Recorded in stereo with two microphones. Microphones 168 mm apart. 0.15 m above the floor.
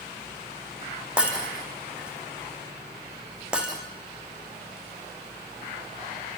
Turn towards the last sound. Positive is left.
turn(degrees=-5)  # may be behind; listen again after turning